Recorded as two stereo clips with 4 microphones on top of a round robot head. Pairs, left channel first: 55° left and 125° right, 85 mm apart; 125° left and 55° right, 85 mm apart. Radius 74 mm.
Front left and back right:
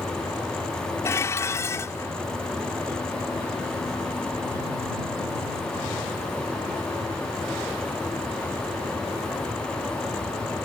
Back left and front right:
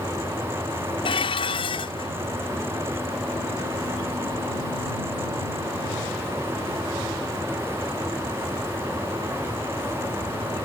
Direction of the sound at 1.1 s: 115° left.